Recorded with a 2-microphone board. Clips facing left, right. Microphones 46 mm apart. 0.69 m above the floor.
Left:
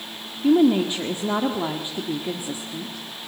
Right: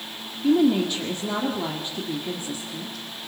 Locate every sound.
0.4 s a woman speaking: 20° left (ahead or behind), 1.9 m